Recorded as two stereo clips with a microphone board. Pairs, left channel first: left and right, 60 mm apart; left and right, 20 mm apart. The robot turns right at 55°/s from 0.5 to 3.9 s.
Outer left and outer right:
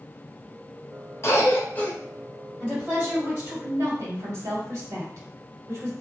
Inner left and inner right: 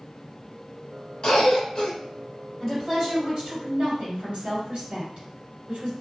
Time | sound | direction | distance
1.2 | a cough | 95° left | 1.6 m
2.6 | a woman speaking | 175° right | 1.8 m